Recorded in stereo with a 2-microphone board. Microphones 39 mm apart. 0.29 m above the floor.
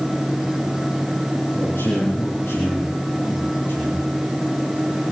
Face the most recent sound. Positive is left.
turn(degrees=75)  # may be behind; listen again after turning